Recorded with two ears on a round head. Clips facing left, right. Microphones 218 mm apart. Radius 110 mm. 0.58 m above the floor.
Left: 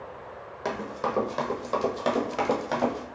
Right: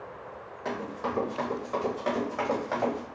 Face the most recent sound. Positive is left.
turn(degrees=35)  # may be behind; listen again after turning